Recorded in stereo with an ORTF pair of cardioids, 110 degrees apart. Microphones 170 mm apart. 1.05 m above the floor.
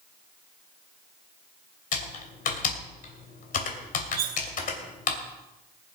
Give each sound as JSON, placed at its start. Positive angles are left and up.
{"t": 1.9, "sound": "typing on a keyboard", "azimuth_deg": 55, "distance_m": 2.5}
{"t": 4.2, "sound": "cutlery clinking", "azimuth_deg": -65, "distance_m": 1.0}